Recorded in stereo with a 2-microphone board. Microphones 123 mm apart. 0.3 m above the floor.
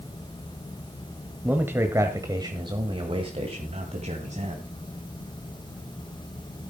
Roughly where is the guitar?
I don't hear a guitar.